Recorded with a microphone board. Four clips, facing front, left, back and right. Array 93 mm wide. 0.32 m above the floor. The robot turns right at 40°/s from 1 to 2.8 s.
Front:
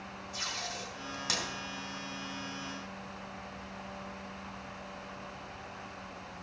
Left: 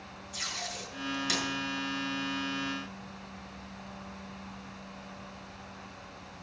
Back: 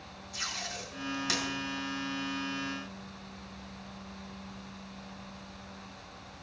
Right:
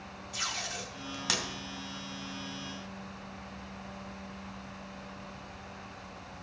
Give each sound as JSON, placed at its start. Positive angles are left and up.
{"t": 0.3, "sound": "tape being pulled", "azimuth_deg": -90, "distance_m": 2.5}